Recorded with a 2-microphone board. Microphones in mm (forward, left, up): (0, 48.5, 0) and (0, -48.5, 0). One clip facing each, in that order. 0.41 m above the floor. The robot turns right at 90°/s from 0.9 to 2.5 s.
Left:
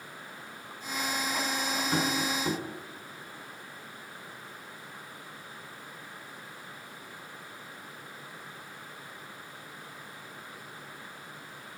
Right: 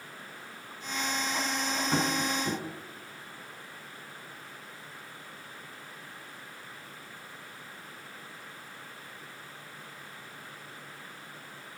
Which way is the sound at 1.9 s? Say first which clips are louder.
Right 1 dB; 30° right (ahead or behind).